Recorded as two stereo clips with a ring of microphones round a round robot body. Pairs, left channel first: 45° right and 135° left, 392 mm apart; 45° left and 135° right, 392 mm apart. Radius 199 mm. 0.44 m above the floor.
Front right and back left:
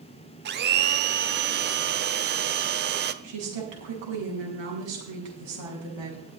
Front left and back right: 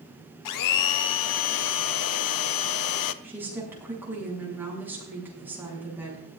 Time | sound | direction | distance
0.5 | a blender | 75° left | 0.7 m
3.2 | a woman speaking | 140° left | 5 m